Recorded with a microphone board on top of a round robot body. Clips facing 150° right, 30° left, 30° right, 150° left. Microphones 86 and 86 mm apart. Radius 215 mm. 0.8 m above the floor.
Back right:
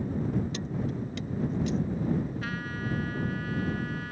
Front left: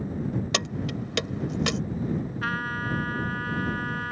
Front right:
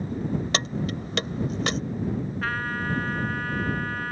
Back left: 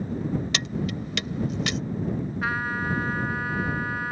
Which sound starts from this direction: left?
A trumpet, at 2.4 s.